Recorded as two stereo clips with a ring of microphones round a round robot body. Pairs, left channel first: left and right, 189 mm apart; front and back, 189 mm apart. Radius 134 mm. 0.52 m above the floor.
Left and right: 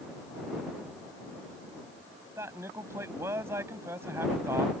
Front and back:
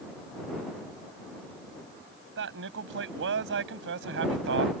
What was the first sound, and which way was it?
A man speaking, 170° right.